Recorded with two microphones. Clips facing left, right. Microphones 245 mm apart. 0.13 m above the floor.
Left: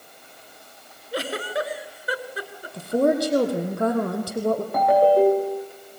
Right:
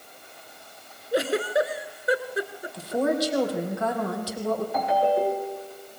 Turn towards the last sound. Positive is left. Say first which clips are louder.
# left 9 dB
turn(degrees=55)  # may be behind; listen again after turning